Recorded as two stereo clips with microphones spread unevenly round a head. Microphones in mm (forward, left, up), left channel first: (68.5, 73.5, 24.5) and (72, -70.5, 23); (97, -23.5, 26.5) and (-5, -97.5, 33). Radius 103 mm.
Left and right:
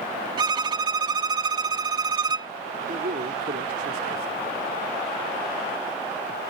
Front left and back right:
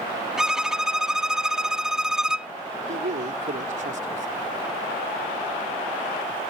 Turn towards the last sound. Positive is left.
turn(degrees=-130)